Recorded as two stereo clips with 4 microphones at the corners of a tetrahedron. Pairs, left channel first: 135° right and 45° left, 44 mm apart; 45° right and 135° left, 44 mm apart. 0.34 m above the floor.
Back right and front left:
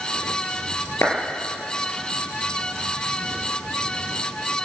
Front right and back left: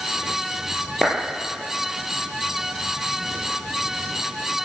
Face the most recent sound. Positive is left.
turn(degrees=-125)